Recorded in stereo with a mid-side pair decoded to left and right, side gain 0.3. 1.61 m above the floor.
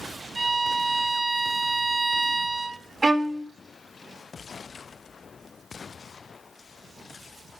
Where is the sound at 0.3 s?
65° right, 2.5 m.